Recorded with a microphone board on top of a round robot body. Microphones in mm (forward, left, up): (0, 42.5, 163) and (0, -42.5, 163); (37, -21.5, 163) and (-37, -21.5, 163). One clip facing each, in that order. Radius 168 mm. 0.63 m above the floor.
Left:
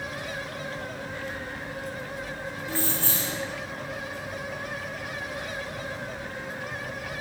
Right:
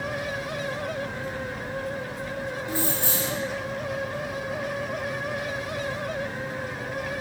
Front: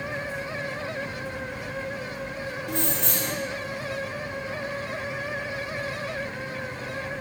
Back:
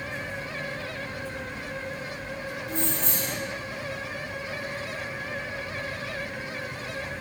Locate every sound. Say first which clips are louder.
2.7 s keys jangling: right 1 dB, front 2 dB; 15° right, 1.7 m